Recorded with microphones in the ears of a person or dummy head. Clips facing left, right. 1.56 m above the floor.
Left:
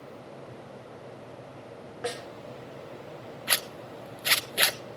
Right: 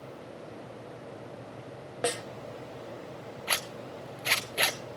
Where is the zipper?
5° left (ahead or behind), 0.9 m.